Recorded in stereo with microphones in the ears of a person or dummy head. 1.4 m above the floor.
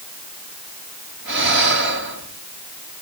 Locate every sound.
1.2 s breathing: 65° right (ahead or behind), 4 m